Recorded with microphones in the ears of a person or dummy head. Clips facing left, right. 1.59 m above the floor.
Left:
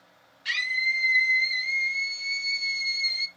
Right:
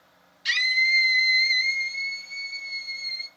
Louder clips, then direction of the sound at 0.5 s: Right 4 dB; 60° right (ahead or behind).